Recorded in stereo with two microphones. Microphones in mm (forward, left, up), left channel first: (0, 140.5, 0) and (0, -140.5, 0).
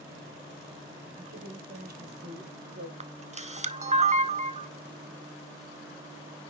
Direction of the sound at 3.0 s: 25° right (ahead or behind).